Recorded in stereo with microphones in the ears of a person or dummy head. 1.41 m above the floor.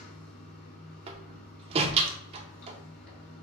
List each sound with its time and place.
0.0 s running water: 55° left (ahead or behind), 1.9 m
1.1 s a door slam: 35° right (ahead or behind), 0.6 m